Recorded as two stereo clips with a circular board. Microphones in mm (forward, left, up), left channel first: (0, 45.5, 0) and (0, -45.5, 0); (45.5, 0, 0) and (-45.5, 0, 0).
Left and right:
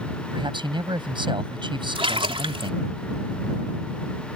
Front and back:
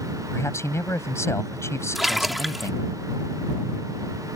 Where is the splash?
90° right.